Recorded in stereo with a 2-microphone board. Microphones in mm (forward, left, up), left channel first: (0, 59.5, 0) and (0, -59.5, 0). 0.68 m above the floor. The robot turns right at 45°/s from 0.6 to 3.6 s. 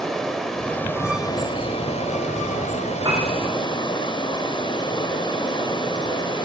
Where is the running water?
5° left, 2.5 m; by 6.5 s 140° left, 2.5 m.